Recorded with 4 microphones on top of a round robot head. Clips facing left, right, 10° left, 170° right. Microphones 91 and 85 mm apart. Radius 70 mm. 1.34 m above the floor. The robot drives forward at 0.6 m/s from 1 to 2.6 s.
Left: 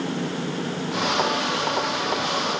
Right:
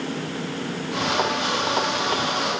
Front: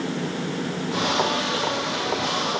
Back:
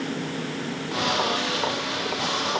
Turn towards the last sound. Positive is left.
No sound to turn to.